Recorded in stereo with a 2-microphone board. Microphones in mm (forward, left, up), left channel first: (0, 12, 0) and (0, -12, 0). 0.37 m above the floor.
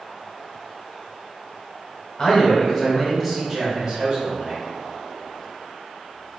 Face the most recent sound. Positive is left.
turn(degrees=-40)  # may be behind; listen again after turning